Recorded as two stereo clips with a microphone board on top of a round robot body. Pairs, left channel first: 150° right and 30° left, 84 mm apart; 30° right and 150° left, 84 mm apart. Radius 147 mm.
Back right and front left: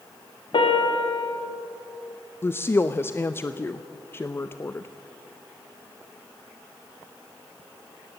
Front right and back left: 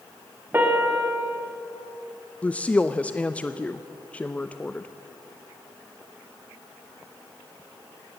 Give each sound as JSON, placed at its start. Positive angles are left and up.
{"t": 0.5, "sound": "a piano", "azimuth_deg": -145, "distance_m": 3.0}
{"t": 2.4, "sound": "a woman speaking", "azimuth_deg": -100, "distance_m": 0.7}